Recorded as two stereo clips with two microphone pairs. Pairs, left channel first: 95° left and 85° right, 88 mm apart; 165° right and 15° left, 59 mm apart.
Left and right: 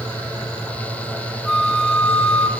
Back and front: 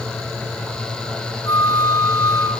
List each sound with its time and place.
1.4 s a flute: straight behind, 0.5 m